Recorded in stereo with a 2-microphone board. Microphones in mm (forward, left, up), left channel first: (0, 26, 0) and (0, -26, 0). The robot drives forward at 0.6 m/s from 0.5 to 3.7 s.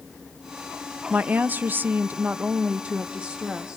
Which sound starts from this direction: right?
A woman speaking, at 1.1 s.